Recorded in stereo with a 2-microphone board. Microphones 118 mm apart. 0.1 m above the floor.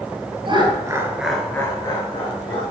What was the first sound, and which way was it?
Laughter, 45° right (ahead or behind).